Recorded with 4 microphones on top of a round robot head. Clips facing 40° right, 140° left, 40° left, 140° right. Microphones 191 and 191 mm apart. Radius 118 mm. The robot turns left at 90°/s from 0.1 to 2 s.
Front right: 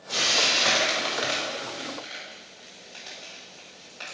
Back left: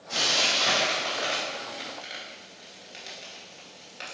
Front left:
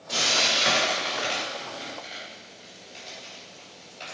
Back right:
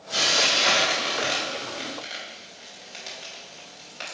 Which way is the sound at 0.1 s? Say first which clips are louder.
Front right 1 dB, back right 2 dB; 15° left.